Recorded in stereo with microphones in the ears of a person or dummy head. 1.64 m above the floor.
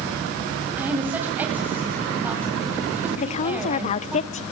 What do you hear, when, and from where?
0.8 s a woman speaking: 10° right (ahead or behind), 8.5 m
3.2 s a woman speaking: 45° left (ahead or behind), 1.0 m